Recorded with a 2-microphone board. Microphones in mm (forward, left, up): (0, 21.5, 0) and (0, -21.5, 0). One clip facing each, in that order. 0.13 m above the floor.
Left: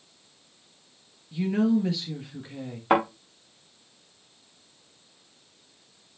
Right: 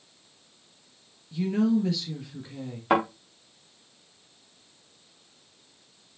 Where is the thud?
5° left (ahead or behind), 4.5 m.